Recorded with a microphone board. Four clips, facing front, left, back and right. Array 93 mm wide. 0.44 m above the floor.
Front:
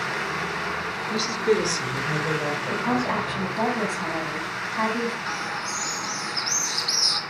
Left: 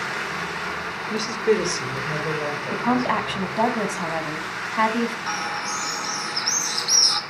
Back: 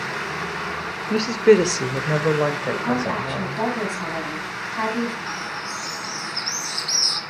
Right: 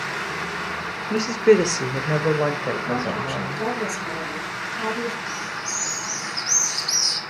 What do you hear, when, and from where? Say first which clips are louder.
1.1 s a woman speaking: right 5 dB, back 8 dB; 165° right, 0.9 m; by 3.7 s 140° right, 2 m
2.7 s a woman speaking: left 4 dB, back 1 dB; 90° left, 3 m
5.3 s a bird: left 3 dB, even; 85° left, 1.7 m